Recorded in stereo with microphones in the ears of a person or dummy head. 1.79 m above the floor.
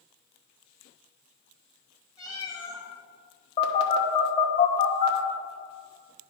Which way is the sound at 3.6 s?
35° left (ahead or behind).